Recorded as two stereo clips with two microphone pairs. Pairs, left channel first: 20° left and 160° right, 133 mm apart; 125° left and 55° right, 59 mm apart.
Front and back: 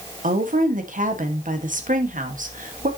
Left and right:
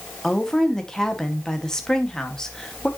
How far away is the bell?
No bell in this recording.